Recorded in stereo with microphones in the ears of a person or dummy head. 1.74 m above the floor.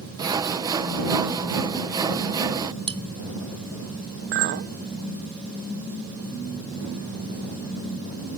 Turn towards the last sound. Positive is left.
turn(degrees=-40)  # may be behind; listen again after turning